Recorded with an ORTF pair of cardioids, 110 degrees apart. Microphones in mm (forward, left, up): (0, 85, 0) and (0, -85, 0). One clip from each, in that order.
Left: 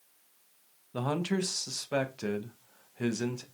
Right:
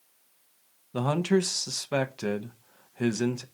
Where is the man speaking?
15° right, 0.6 m.